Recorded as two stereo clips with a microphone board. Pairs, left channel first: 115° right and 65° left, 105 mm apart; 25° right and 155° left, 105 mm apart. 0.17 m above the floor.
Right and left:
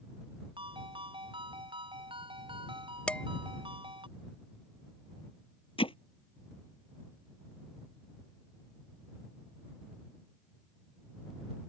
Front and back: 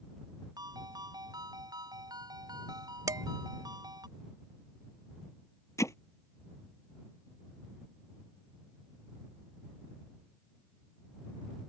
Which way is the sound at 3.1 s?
Straight behind.